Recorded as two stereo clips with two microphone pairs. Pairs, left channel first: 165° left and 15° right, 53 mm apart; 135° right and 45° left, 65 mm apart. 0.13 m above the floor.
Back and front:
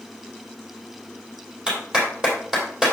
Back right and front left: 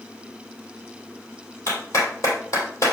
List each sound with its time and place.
1.7 s a clap: 90° right, 3 m